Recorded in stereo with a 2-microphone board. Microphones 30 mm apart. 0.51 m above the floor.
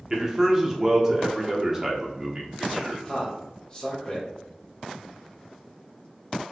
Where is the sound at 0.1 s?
20° right (ahead or behind), 0.8 m.